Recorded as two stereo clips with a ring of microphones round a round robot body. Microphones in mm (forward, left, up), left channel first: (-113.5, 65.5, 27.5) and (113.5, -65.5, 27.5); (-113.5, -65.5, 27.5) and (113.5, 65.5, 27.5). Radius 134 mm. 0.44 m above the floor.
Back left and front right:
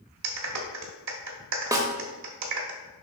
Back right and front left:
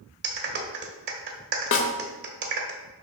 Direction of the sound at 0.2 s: 15° right.